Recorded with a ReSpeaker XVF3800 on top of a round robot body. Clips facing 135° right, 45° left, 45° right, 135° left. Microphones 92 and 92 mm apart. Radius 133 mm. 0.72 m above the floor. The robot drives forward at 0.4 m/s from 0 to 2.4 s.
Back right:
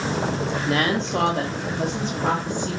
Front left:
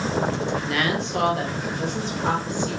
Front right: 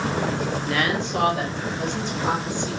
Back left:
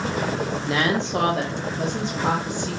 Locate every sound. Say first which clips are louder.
0.7 s a woman speaking: back right 2 dB, back left 3 dB; 170° right, 0.6 m; by 2.8 s 175° right, 1.1 m